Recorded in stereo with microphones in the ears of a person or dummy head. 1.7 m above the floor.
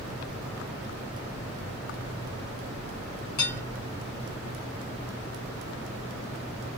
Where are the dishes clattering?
55° left (ahead or behind), 1.8 m.